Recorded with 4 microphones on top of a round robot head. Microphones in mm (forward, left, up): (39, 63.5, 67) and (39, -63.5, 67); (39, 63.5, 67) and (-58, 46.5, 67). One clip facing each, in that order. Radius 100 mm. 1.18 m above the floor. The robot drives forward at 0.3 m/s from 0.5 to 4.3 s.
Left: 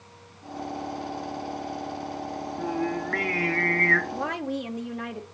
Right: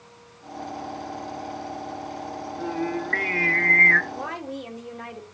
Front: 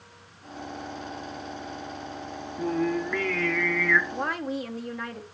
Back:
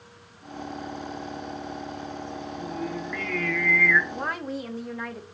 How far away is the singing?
About 0.9 m.